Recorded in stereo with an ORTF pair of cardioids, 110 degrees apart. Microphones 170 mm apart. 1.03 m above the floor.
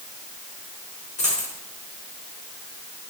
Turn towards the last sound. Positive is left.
turn(degrees=45)